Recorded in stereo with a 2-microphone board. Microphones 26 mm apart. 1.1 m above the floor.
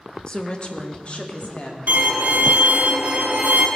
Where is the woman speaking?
35° left (ahead or behind), 1.0 m; by 1.8 s 50° left (ahead or behind), 2.5 m.